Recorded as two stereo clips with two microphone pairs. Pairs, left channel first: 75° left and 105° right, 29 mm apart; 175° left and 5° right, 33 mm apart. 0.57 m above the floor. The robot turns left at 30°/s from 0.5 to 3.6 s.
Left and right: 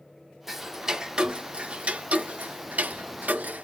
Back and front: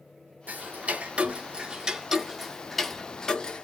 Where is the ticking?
25° right, 0.6 m; by 3.6 s 120° right, 0.6 m.